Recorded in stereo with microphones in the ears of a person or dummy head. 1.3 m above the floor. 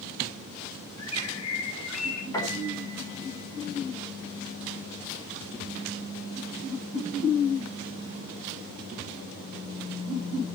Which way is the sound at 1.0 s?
80° left.